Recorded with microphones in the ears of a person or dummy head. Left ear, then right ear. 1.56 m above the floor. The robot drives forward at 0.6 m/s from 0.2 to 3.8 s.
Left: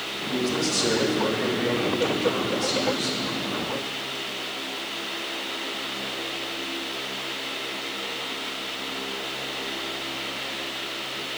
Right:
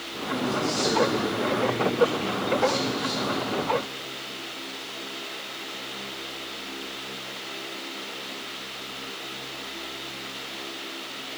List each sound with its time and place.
0.3 s a man speaking: 15° left (ahead or behind), 3 m; by 3.2 s 10° left (ahead or behind), 4.5 m